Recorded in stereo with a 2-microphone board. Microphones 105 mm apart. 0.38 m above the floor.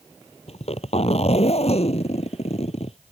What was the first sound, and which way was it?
A zipper, 85° left.